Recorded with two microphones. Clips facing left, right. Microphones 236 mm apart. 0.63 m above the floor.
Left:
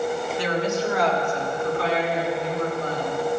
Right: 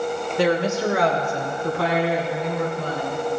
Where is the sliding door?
No sliding door in this recording.